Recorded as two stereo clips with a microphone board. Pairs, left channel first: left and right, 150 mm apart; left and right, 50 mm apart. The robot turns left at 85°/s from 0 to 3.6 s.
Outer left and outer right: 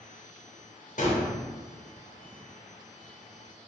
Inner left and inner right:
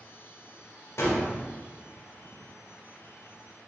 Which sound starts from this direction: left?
A gunshot, at 1.0 s.